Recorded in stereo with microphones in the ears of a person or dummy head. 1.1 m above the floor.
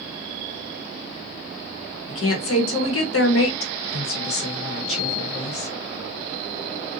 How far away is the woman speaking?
About 1.1 m.